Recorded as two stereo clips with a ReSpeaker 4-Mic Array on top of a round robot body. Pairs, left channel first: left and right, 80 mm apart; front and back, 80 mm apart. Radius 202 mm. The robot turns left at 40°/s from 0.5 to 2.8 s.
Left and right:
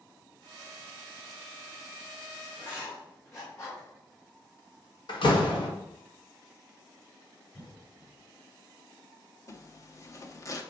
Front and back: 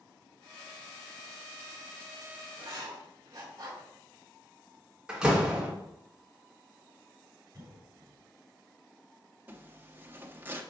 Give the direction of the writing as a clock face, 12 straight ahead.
7 o'clock.